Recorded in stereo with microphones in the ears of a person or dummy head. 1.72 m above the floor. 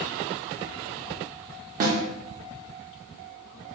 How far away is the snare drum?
About 0.7 m.